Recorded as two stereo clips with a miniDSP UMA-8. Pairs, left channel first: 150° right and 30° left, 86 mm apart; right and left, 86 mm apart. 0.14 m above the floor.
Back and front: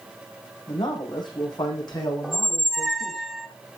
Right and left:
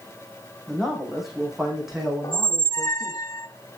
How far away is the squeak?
About 0.8 m.